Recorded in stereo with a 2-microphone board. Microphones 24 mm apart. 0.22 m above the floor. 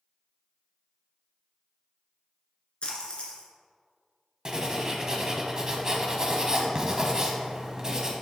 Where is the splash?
45° left (ahead or behind), 1.5 m.